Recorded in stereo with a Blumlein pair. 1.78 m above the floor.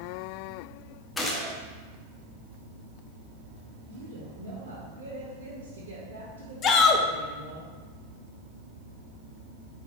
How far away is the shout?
About 0.7 m.